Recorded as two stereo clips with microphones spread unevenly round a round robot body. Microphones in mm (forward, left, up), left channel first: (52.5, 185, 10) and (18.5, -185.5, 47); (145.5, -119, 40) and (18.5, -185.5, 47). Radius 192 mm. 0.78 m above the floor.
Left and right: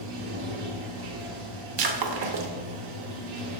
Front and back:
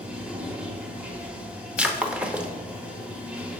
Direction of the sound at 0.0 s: 70° right.